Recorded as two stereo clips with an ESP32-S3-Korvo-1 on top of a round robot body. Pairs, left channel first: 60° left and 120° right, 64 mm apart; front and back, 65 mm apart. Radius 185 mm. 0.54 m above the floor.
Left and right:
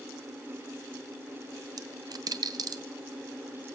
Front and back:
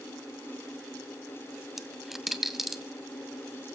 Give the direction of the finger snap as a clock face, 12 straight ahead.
I don't hear a finger snap.